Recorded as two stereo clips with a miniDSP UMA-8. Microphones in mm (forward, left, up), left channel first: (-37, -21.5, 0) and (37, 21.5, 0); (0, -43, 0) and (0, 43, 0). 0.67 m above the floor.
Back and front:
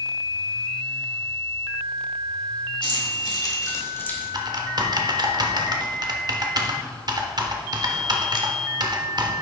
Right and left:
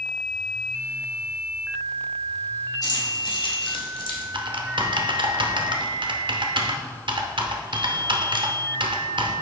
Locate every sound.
2.8 s keys jangling: 135° right, 1.9 m; by 4.2 s 75° right, 1.6 m
4.3 s typing on a keyboard: 70° left, 0.7 m